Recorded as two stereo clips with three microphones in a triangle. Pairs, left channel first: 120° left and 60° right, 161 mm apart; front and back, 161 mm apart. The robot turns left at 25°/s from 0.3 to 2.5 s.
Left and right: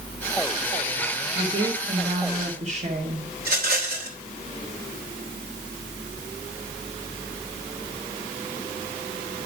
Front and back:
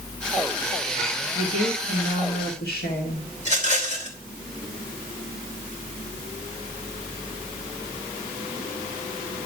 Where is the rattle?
40° right, 3 m.